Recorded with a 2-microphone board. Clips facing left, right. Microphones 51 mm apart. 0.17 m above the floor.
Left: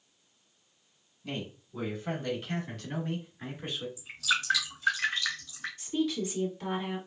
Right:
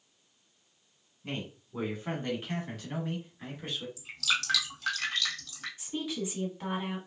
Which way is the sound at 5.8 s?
10° right (ahead or behind).